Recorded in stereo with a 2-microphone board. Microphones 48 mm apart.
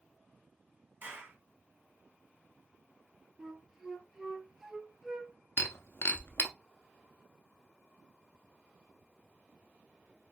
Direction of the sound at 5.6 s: 60° left (ahead or behind).